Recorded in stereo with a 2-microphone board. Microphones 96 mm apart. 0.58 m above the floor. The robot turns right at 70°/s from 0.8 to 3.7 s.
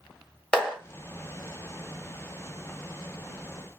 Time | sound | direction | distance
0.5 | a clap | 10° left (ahead or behind) | 1.6 m